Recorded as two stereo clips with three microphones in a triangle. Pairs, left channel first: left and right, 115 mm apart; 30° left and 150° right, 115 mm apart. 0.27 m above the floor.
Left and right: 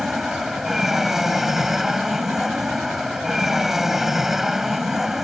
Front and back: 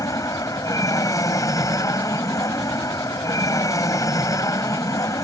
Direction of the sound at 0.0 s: 5° right.